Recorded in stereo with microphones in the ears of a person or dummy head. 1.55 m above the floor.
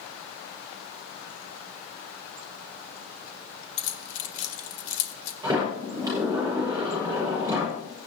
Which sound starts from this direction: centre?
A sliding door, at 5.4 s.